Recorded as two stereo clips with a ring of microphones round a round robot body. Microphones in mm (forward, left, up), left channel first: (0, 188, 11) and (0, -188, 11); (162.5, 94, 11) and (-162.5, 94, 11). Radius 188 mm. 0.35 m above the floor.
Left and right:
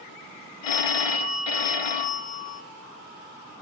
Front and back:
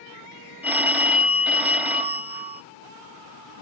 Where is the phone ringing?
95° left, 0.9 m.